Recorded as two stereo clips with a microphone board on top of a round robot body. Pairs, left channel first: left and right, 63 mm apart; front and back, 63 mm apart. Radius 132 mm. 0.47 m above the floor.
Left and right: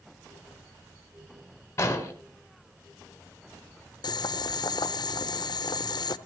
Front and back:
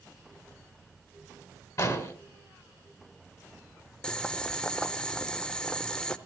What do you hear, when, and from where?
1.8 s an explosion: 40° left, 2.5 m
4.0 s boiling: 80° left, 0.6 m